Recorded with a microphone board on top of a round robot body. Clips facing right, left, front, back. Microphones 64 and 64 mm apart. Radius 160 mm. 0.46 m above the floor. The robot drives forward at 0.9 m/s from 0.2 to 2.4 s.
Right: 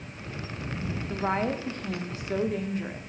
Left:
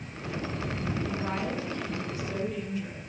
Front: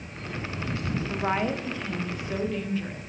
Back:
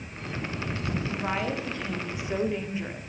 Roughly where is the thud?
I don't hear a thud.